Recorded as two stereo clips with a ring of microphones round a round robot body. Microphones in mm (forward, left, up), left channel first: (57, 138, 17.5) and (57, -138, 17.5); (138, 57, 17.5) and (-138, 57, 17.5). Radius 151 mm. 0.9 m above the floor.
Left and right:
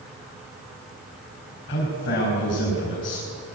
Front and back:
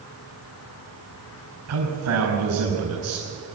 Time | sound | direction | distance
1.7 | a man speaking | 145° left | 5.5 m